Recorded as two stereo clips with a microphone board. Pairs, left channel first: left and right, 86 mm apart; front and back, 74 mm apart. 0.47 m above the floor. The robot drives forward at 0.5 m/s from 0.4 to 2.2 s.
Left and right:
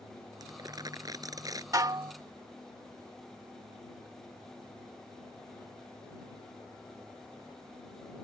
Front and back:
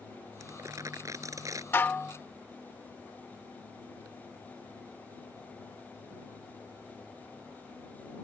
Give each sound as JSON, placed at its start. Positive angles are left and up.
{"t": 0.4, "sound": "crumpling", "azimuth_deg": -135}
{"t": 1.7, "sound": "dishes clattering", "azimuth_deg": -55}